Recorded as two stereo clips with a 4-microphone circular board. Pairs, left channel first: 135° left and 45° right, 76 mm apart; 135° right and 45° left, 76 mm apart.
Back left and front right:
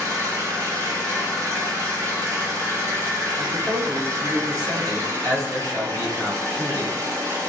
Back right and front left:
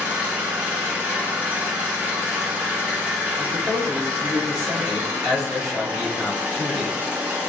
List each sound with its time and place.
0.0 s an engine running: 15° right, 1.4 m
3.4 s a man speaking: 50° right, 1.7 m